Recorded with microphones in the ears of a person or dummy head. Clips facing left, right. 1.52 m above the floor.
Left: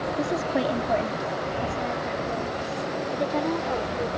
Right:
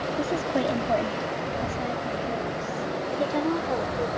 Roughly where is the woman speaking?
Centre.